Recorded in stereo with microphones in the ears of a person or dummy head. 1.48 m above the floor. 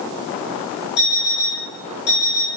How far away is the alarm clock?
About 4 m.